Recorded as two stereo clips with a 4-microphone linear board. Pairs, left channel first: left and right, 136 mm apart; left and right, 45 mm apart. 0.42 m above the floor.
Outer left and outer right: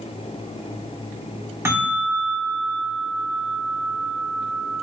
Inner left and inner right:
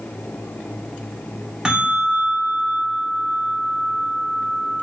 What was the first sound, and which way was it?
A bell, 20° right (ahead or behind).